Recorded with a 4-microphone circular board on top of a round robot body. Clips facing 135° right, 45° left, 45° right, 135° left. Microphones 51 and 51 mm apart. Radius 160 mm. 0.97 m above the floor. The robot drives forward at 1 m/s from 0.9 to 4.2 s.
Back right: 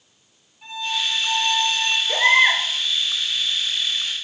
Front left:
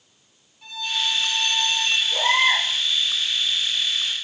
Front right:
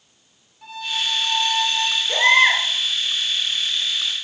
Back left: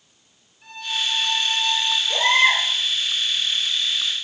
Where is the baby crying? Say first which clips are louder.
Back right 5 dB, front right 3 dB; 100° right, 6.5 m.